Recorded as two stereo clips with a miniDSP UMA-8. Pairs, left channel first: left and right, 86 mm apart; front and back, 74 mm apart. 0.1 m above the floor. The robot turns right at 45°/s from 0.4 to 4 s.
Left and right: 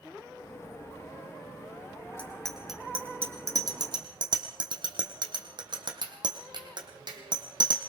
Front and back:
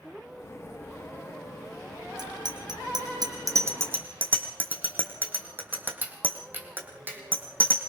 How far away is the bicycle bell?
About 3.5 m.